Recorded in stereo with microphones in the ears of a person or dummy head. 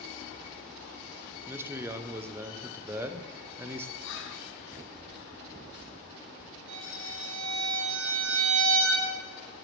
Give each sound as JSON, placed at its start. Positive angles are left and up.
{"t": 1.5, "sound": "a man speaking", "side_deg": -10, "distance_m": 0.5}
{"t": 4.0, "sound": "whispering", "side_deg": 65, "distance_m": 0.8}
{"t": 6.7, "sound": "a violin", "side_deg": -75, "distance_m": 1.6}